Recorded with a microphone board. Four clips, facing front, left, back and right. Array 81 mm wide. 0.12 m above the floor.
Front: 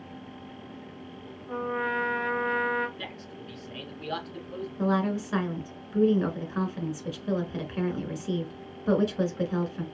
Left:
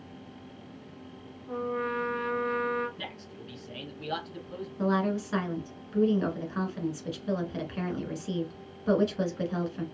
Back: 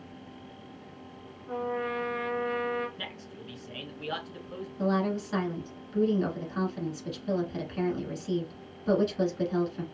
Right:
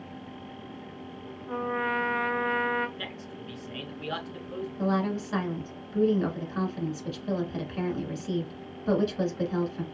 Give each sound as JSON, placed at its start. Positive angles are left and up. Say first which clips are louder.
{"t": 1.5, "sound": "a trumpet", "louder": "right 2 dB, front 2 dB", "azimuth_deg": -80, "distance_m": 0.8}
{"t": 3.0, "sound": "a man speaking", "louder": "right 3 dB, front 2 dB", "azimuth_deg": -125, "distance_m": 1.1}
{"t": 4.8, "sound": "a woman speaking", "louder": "left 1 dB, front 1 dB", "azimuth_deg": 15, "distance_m": 1.1}